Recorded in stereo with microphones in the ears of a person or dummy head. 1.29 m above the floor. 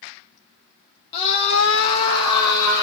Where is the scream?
35° left (ahead or behind), 1.2 m; by 2.8 s 20° left (ahead or behind), 2 m.